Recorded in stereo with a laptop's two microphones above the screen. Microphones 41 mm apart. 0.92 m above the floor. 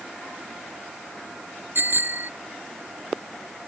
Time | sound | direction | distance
1.8 | a bicycle bell | 55° right (ahead or behind) | ?